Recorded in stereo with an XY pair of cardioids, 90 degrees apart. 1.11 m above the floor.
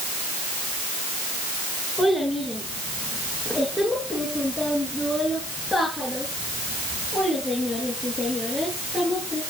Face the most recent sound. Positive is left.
turn(degrees=30)